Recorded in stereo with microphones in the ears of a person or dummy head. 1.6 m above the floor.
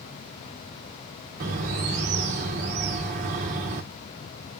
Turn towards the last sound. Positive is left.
turn(degrees=-40)  # may be behind; listen again after turning